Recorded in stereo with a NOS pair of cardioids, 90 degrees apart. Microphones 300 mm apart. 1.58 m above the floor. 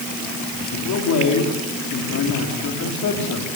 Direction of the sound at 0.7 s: 65° left.